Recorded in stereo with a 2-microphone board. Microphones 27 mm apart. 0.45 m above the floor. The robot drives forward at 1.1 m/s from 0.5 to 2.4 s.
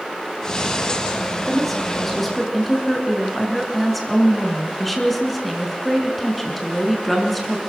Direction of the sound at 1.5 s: Centre (ahead or behind).